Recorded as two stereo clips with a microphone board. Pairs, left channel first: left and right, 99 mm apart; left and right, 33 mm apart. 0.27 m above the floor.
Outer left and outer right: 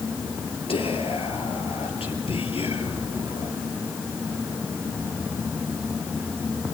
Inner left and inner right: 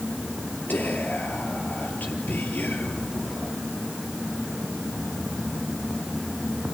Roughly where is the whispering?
Left.